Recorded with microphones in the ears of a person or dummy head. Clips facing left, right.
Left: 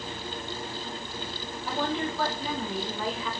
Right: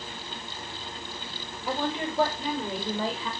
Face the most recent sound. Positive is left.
turn(degrees=-35)  # may be behind; listen again after turning